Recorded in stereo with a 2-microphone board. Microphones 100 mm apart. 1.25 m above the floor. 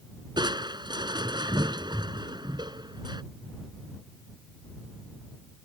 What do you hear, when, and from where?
0.4 s crushing: 45° right (ahead or behind)